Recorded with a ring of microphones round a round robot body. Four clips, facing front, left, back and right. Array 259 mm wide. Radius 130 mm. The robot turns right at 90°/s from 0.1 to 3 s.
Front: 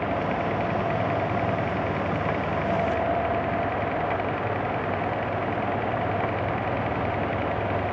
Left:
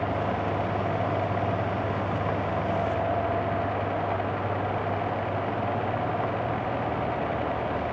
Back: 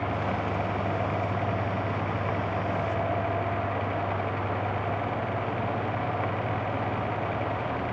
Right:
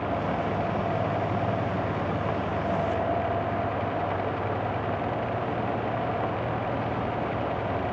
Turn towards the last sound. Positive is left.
No sound to turn to.